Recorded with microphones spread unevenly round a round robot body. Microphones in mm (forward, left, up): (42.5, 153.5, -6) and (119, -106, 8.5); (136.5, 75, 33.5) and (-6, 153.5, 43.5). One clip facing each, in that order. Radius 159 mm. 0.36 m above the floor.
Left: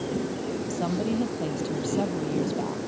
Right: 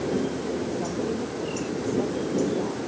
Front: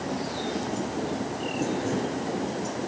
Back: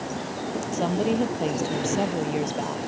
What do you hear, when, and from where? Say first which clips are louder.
0.7 s a woman speaking: left 1 dB, back 6 dB; 145° left